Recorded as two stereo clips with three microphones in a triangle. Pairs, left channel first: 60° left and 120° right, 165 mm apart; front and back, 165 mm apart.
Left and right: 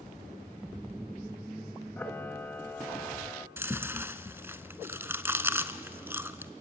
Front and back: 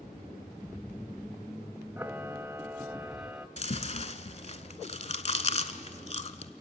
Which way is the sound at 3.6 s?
45° right.